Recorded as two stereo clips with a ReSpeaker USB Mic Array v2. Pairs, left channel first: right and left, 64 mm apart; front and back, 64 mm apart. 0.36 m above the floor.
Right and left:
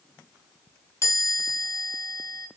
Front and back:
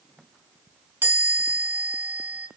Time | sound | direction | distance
1.0 | a chime | 125° right | 2.5 m